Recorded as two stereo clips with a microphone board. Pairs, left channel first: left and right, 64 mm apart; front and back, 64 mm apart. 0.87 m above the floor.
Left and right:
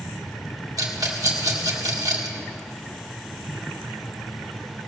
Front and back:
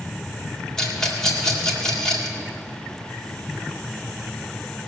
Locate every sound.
0.8 s a rattle: 75° right, 1.9 m